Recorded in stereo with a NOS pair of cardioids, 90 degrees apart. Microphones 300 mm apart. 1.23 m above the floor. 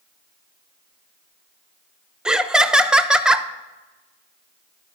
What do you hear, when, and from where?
2.2 s laughter: 5° right, 0.7 m